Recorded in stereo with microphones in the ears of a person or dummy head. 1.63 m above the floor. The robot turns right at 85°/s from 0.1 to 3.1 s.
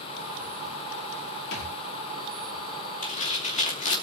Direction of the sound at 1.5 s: 75° left (ahead or behind).